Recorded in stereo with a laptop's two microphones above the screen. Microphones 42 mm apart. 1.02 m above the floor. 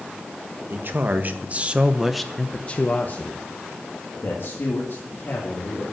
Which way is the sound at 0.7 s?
55° right (ahead or behind).